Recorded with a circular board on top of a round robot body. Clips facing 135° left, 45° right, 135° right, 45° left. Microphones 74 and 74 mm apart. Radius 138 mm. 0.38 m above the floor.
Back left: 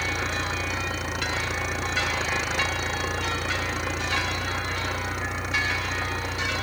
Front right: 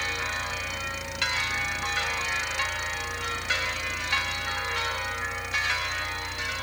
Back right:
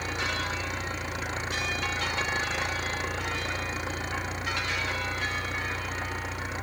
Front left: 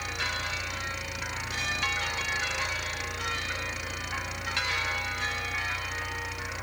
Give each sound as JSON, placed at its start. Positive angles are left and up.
{"t": 0.0, "sound": "an engine running", "azimuth_deg": 170}